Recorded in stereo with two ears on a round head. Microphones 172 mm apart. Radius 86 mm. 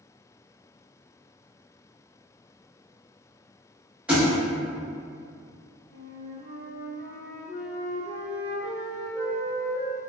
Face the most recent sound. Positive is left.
turn(degrees=35)  # may be behind; listen again after turning